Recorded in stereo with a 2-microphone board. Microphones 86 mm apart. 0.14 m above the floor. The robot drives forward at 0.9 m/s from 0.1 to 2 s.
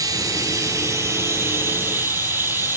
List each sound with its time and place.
0.0 s running water: 45° right (ahead or behind), 2 m; by 2.8 s 25° right (ahead or behind), 3.5 m